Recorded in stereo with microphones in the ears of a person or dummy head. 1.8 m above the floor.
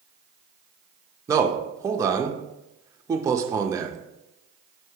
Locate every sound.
1.3 s a man speaking: 15° right (ahead or behind), 0.6 m